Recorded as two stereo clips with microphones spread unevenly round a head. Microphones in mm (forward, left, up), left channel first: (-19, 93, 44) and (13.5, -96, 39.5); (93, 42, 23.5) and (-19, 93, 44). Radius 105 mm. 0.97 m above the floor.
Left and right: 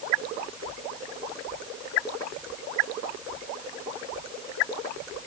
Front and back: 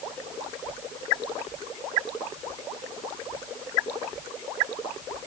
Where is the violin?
No violin in this recording.